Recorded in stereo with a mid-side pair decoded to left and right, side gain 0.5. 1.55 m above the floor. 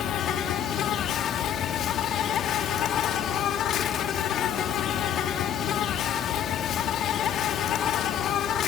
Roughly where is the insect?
Ahead left.